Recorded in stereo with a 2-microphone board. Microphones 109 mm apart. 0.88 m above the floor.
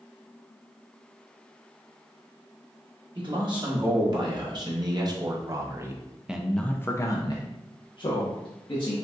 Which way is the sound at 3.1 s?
50° right (ahead or behind).